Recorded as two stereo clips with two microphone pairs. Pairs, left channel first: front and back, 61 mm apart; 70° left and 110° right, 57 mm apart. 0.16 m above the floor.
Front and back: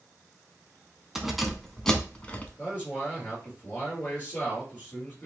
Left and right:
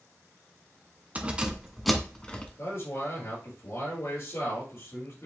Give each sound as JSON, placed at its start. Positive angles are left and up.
{"t": 1.1, "sound": "keys jangling", "azimuth_deg": -105, "distance_m": 0.8}
{"t": 2.6, "sound": "a man speaking", "azimuth_deg": 65, "distance_m": 3.0}